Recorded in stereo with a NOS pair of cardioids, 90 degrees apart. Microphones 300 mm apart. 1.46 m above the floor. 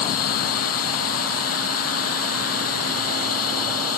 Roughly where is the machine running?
Ahead left.